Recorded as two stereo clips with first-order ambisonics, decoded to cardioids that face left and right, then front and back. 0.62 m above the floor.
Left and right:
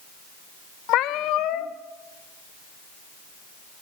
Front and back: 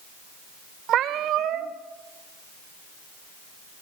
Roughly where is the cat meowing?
Behind left.